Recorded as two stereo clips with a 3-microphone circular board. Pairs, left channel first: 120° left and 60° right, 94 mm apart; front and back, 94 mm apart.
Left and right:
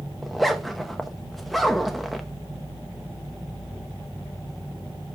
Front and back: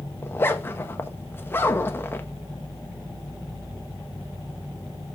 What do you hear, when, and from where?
0.2 s a zipper: 30° left, 0.7 m